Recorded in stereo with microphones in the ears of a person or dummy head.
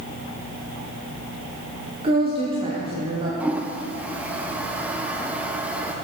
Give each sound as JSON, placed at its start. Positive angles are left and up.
{"t": 2.0, "sound": "a woman speaking", "side_deg": -30, "distance_m": 0.9}
{"t": 3.4, "sound": "a toilet flushing", "side_deg": -5, "distance_m": 0.5}